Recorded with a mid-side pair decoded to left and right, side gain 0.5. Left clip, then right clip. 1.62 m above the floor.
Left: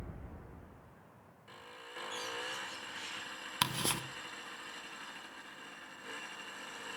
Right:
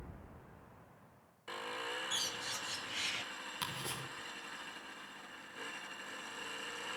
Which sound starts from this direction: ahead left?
Ticking, at 3.6 s.